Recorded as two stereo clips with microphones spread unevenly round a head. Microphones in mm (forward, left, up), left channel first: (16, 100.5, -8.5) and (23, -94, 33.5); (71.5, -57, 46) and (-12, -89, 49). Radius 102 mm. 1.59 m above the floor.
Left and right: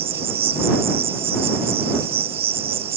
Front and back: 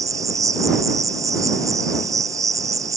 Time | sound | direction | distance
0.0 | an insect | 150° right | ?